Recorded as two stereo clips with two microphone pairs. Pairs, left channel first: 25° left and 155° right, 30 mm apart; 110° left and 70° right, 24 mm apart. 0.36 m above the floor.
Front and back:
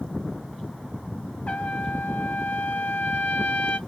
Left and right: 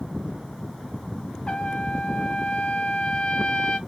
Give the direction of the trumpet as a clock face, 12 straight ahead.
10 o'clock.